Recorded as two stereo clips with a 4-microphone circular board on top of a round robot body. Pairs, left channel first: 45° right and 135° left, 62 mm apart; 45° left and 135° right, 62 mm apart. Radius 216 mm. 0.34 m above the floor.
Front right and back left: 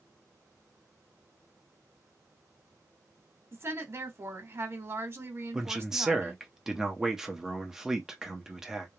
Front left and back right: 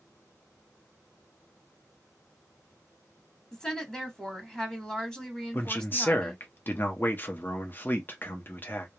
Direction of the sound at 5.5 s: 60° left.